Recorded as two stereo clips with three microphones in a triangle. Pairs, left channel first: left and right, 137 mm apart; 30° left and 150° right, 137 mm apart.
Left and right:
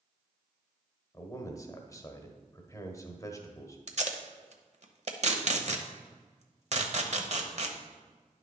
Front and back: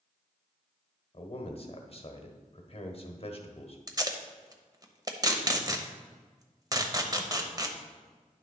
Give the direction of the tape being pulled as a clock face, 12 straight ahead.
3 o'clock.